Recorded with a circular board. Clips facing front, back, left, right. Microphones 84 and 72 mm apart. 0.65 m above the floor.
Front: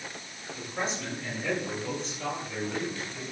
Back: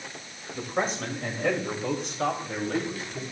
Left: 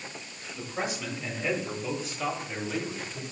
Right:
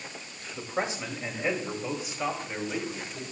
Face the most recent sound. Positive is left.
turn(degrees=-170)